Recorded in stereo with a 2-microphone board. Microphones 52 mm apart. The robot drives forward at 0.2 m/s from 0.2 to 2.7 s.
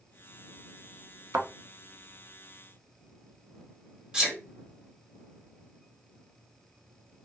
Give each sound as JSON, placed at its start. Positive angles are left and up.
{"t": 1.3, "sound": "a thud", "side_deg": -65, "distance_m": 0.5}
{"t": 4.1, "sound": "a sneeze", "side_deg": -20, "distance_m": 0.9}